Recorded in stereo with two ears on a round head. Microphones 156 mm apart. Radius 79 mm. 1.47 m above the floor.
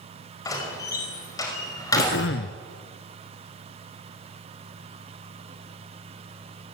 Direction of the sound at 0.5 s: 20° left (ahead or behind).